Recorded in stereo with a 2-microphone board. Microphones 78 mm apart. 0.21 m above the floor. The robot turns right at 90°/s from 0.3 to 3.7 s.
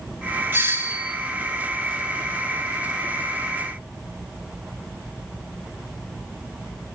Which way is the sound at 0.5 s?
25° right (ahead or behind).